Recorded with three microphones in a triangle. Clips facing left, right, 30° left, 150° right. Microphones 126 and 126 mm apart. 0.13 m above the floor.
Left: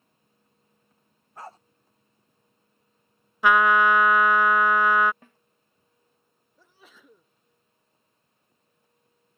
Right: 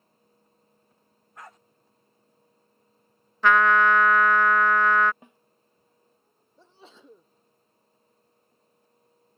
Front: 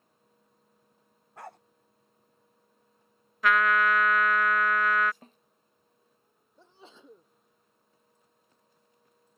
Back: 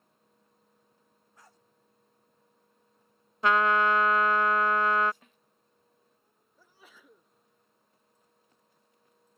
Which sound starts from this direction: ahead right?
A sneeze, at 6.6 s.